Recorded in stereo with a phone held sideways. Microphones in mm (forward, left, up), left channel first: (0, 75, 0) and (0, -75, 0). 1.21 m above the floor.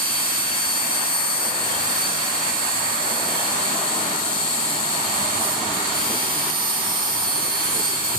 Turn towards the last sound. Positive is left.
turn(degrees=-85)